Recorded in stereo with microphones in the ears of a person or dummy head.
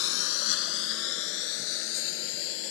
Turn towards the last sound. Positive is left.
turn(degrees=70)  # may be behind; listen again after turning